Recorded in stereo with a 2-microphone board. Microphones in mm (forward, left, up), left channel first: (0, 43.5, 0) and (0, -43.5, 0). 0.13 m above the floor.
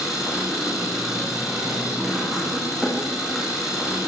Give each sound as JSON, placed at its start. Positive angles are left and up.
{"t": 0.0, "sound": "an engine running", "side_deg": 0, "distance_m": 8.5}